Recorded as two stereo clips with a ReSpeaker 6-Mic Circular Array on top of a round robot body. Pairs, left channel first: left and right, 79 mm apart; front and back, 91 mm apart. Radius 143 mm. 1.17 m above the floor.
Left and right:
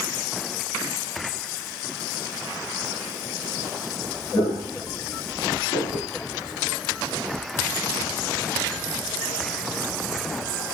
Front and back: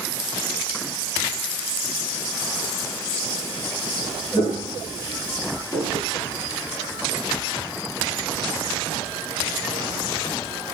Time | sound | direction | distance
4.3 | footsteps | 40° left | 1.2 m